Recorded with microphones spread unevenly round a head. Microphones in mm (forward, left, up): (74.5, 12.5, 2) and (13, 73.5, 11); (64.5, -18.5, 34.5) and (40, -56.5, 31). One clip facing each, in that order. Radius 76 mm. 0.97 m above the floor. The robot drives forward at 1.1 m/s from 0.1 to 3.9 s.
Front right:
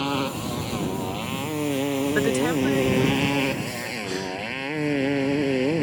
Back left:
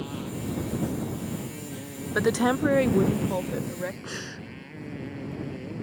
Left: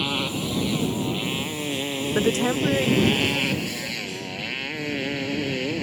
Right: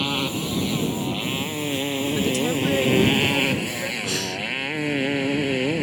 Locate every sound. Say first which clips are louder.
0.0 s a motorcycle: front right 8 dB, right 1 dB; 30° right; by 5.8 s 50° right
2.1 s a woman speaking: back left 2 dB, left 3 dB; 45° left; by 3.9 s 170° left
4.0 s breathing: front right 9 dB, right 5 dB; 135° right